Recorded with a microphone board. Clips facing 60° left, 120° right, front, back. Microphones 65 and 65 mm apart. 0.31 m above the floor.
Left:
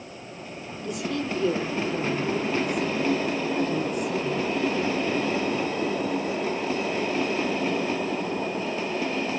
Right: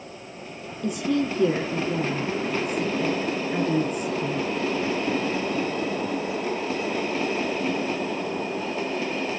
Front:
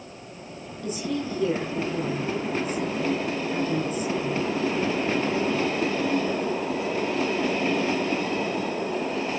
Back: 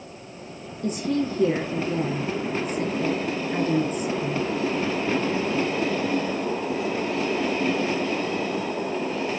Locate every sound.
0.8 s a woman speaking: 135° right, 7 m